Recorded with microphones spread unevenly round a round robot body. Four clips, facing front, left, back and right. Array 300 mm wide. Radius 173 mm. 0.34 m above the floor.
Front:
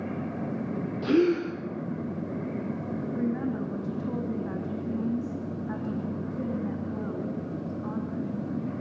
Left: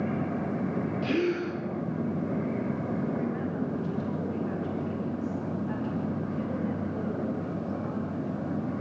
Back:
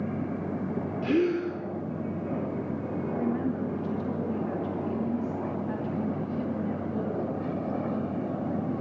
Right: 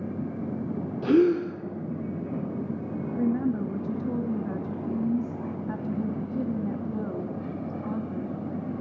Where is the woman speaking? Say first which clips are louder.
Right 4 dB, even; 90° right, 3 m.